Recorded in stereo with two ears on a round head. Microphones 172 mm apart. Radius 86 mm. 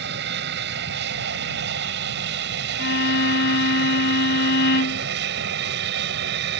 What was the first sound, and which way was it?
An aircraft, 60° right (ahead or behind).